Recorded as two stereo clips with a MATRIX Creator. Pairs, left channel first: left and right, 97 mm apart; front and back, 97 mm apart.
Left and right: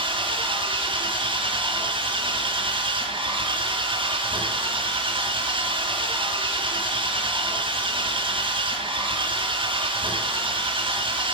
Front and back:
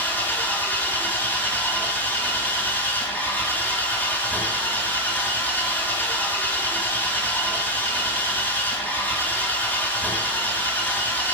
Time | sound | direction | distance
0.0 | an engine running | 70° right | 1.6 m